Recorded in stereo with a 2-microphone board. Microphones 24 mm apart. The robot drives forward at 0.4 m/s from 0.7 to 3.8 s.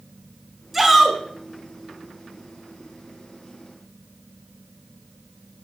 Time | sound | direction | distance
0.7 | a shout | 5° right (ahead or behind) | 1.4 m